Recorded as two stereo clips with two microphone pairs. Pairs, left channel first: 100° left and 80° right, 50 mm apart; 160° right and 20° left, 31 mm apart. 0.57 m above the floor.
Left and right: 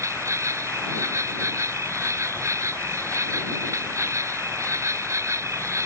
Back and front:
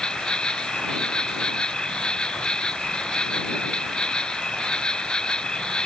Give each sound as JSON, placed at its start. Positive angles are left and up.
{"t": 0.0, "sound": "an insect", "azimuth_deg": -100}